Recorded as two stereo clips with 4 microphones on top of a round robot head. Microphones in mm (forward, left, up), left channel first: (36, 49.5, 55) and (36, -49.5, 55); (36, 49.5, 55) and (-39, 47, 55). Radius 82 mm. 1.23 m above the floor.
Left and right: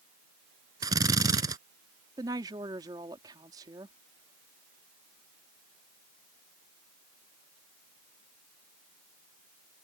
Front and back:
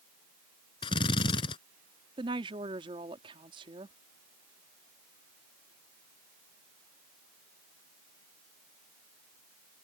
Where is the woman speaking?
150° right.